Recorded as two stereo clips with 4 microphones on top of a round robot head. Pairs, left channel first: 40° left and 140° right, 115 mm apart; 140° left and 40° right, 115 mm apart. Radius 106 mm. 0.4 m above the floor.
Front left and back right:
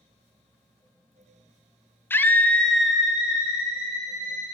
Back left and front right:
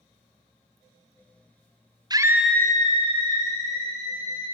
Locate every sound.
2.1 s a scream: 20° right, 0.9 m; by 4.5 s 145° left, 3 m